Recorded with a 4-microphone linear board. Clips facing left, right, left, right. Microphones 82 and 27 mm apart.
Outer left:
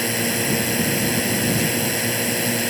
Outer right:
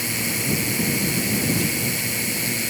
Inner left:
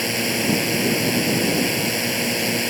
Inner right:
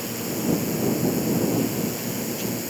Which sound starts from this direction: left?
A drone, at 0.0 s.